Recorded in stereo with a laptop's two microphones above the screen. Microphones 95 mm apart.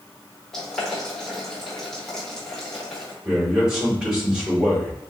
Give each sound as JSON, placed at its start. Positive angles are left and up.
{"t": 0.5, "sound": "boiling", "side_deg": 5, "distance_m": 1.7}
{"t": 3.2, "sound": "a man speaking", "side_deg": -10, "distance_m": 2.5}